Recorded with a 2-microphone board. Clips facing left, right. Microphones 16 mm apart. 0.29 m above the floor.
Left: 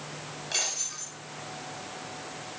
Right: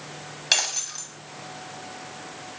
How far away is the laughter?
No laughter in this recording.